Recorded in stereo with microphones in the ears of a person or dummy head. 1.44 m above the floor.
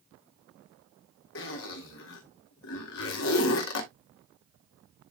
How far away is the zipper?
About 1.8 m.